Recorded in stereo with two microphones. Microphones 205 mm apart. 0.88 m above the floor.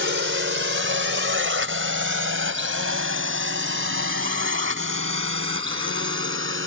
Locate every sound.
0.0 s a drone: 75° right (ahead or behind); by 6.7 s 80° right